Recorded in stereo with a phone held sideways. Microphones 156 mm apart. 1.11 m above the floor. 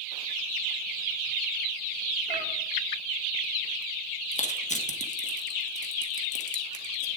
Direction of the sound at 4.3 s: 45° left (ahead or behind).